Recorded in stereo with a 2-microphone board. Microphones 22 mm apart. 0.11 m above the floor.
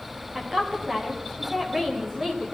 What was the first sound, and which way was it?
A woman speaking, 25° right (ahead or behind).